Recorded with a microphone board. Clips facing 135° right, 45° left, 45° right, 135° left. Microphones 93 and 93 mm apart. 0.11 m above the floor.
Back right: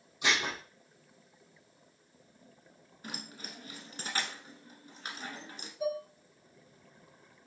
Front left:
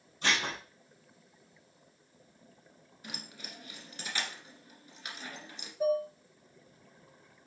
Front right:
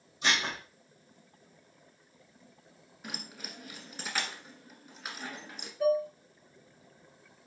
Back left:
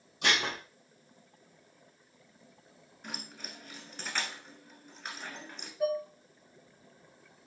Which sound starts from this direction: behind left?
Dishes clattering, at 0.2 s.